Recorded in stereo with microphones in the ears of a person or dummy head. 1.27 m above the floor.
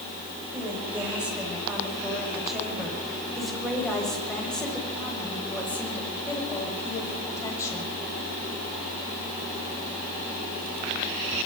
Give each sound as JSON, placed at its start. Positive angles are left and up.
{"t": 0.5, "sound": "a woman speaking", "side_deg": -5, "distance_m": 8.0}